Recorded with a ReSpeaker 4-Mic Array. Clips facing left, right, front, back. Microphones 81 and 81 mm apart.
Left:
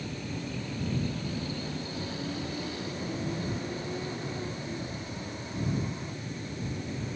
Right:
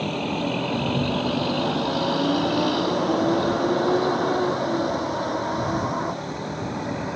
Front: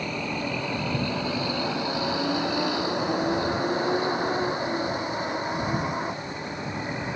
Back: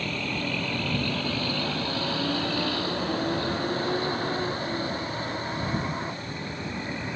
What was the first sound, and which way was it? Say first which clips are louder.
A vehicle: right 12 dB, front 1 dB; 75° right.